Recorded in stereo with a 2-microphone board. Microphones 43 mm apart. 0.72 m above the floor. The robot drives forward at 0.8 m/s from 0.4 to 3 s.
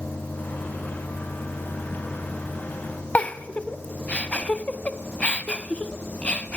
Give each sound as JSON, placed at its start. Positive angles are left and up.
{"t": 3.1, "sound": "a giggle", "side_deg": 30, "distance_m": 0.7}